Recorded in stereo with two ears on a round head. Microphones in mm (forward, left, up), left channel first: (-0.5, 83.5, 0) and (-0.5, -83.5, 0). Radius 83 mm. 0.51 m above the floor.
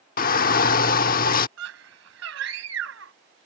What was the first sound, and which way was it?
A shout, 45° left (ahead or behind).